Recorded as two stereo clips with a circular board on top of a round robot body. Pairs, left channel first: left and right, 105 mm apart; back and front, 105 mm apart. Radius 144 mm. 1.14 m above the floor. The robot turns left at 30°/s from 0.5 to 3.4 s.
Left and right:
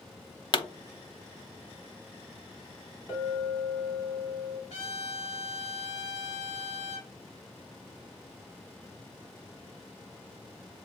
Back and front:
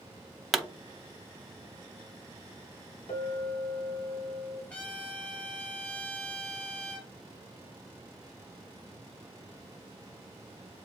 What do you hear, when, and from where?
0.5 s a pop: 90° left, 0.9 m; by 0.7 s 85° left, 0.9 m
3.1 s a clink: 150° left, 2.5 m; by 4.6 s 145° left, 2.5 m
4.7 s a trumpet: 105° left, 2 m